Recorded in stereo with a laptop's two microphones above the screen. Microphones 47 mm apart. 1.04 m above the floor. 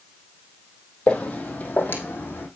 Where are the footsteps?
25° left (ahead or behind), 1.7 m; by 2.5 s 45° left (ahead or behind), 2.5 m.